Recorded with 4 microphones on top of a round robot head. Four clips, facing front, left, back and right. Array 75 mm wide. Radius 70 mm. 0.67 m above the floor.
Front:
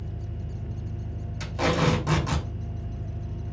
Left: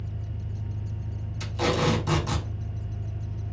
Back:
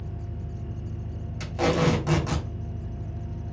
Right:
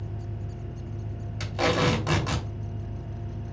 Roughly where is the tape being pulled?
Right.